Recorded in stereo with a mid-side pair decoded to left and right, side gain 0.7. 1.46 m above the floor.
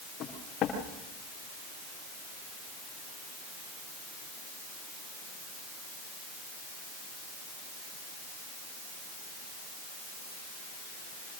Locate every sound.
0.2 s footsteps: 45° left, 7 m